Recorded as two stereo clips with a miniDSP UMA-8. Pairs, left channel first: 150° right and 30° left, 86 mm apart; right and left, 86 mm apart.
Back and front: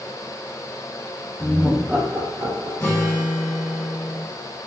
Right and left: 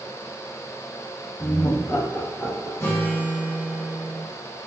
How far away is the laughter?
About 0.5 m.